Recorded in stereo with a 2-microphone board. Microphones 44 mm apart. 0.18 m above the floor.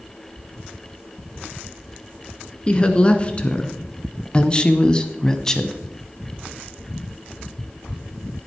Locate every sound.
2.7 s a woman speaking: 25° left (ahead or behind), 2 m; by 5.8 s 10° left (ahead or behind), 1.1 m